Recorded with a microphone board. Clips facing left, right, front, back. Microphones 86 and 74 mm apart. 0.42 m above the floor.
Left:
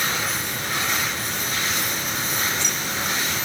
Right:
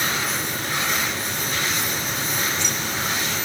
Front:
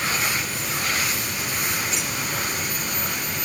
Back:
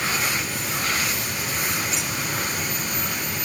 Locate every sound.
Only background noise.